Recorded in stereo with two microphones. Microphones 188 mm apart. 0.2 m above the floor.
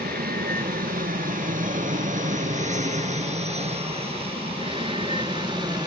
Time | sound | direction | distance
0.0 | an aircraft | 55° right (ahead or behind) | ?